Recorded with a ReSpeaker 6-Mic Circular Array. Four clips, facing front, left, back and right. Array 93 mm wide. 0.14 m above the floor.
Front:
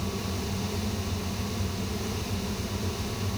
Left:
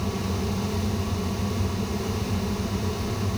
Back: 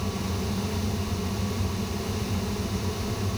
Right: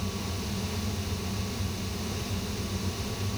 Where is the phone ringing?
I don't hear a phone ringing.